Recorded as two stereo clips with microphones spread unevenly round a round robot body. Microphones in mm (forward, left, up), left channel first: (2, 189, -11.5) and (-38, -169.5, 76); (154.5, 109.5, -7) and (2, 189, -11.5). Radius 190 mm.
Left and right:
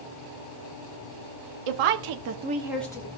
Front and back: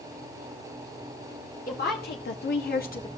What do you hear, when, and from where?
1.7 s a woman speaking: 85° right, 1.4 m; by 3.1 s 15° left, 1.6 m